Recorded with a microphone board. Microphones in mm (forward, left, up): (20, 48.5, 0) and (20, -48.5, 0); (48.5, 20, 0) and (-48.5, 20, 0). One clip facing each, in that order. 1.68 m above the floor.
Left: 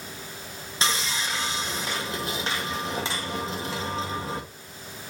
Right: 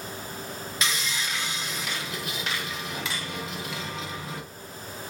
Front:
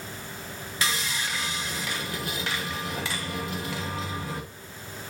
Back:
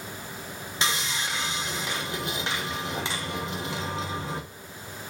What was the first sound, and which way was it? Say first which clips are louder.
Sawing: left 3 dB, back 1 dB; 125° left.